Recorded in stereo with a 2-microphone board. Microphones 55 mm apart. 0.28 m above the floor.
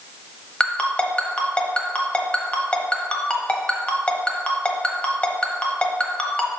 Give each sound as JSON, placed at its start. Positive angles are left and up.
{"t": 0.6, "sound": "a ringtone", "side_deg": 20, "distance_m": 0.9}